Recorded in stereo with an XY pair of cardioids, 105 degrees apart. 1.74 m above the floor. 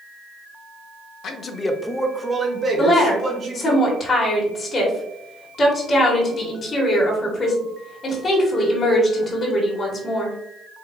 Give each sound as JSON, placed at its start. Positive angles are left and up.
{"t": 1.2, "sound": "a man speaking", "azimuth_deg": 65, "distance_m": 0.7}
{"t": 2.8, "sound": "a woman speaking", "azimuth_deg": 40, "distance_m": 1.5}